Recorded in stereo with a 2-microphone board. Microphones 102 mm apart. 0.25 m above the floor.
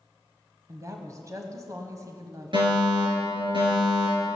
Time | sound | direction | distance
0.7 | a woman speaking | 35° right (ahead or behind) | 1.2 m
2.5 | a fire alarm | 60° right (ahead or behind) | 6 m